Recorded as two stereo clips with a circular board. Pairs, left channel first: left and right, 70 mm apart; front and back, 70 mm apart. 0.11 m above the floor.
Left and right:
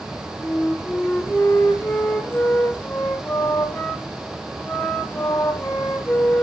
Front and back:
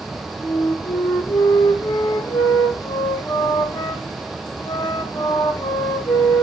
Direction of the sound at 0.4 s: 20° left.